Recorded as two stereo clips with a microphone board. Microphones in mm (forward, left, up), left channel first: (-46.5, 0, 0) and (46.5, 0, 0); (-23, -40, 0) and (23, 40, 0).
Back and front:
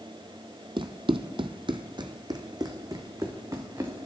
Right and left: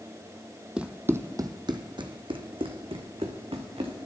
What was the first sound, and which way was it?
Running footsteps, 20° right.